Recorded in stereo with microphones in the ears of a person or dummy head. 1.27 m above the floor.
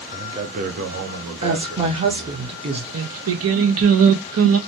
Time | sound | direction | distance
0.1 | a man speaking | 15° right (ahead or behind) | 0.5 m
1.4 | a woman speaking | 30° right (ahead or behind) | 0.7 m
2.9 | singing | 70° right (ahead or behind) | 0.5 m